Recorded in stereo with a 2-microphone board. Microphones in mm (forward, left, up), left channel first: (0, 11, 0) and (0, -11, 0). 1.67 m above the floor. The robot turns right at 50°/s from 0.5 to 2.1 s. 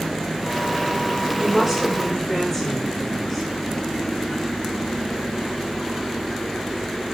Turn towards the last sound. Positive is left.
turn(degrees=10)